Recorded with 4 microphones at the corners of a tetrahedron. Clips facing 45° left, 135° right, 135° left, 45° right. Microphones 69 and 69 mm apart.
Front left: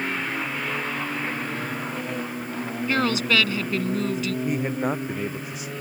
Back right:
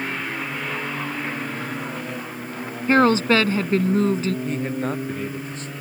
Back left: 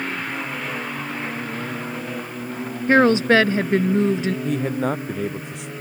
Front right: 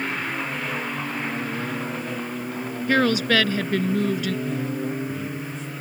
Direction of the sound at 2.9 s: 175° right.